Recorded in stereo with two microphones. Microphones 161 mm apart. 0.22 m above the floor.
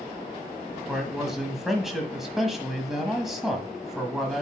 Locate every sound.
0.9 s a man speaking: centre (ahead or behind), 1.4 m